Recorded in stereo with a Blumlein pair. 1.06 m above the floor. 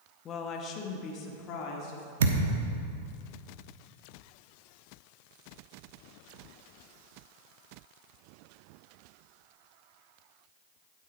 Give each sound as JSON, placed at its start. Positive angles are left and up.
{"t": 0.2, "sound": "a woman speaking", "azimuth_deg": 25, "distance_m": 1.0}
{"t": 2.2, "sound": "a thud", "azimuth_deg": -60, "distance_m": 1.0}